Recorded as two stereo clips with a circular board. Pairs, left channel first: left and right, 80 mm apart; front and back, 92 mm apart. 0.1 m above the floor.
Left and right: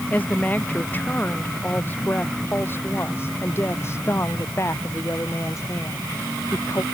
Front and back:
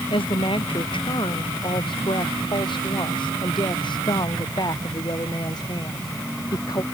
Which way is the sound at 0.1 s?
20° left.